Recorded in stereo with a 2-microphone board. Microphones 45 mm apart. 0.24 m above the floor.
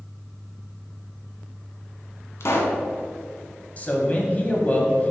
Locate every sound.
2.4 s a pop: 60° left (ahead or behind), 1.2 m
3.8 s a man speaking: 30° left (ahead or behind), 1.1 m